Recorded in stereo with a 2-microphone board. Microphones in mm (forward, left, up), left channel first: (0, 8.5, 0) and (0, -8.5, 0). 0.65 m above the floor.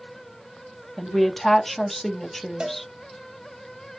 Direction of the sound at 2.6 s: 70° right (ahead or behind).